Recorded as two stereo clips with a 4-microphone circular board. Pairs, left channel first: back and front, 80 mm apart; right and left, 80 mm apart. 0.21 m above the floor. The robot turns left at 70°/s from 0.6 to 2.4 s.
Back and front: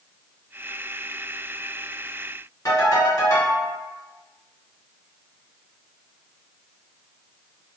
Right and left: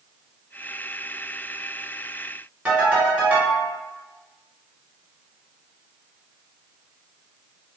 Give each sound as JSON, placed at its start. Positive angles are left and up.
{"t": 2.6, "sound": "a ringtone", "azimuth_deg": 155, "distance_m": 1.4}